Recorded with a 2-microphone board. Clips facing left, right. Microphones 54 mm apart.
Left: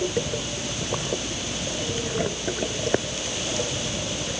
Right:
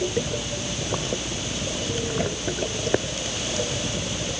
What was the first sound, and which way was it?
Only background noise.